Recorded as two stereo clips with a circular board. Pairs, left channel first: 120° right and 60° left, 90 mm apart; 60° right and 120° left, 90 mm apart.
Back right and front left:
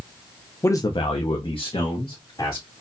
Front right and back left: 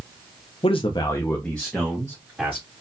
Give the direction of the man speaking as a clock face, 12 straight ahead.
2 o'clock.